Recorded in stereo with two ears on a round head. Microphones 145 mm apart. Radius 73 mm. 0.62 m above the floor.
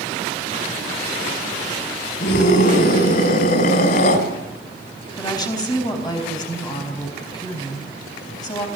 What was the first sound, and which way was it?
A scream, 55° left (ahead or behind).